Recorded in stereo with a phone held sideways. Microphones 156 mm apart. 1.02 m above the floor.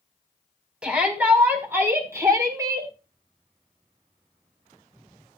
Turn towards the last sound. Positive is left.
turn(degrees=-25)  # may be behind; listen again after turning